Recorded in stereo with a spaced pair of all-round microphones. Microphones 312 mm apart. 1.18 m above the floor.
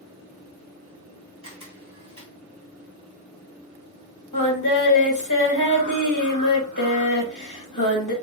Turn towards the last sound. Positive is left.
turn(degrees=70)  # may be behind; listen again after turning